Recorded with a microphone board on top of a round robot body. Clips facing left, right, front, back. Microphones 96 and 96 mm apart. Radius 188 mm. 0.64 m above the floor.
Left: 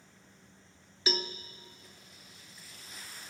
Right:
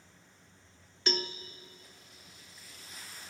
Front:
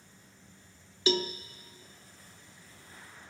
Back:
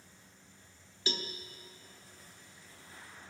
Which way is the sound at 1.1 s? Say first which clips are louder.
Even, front 10 dB; 5° left.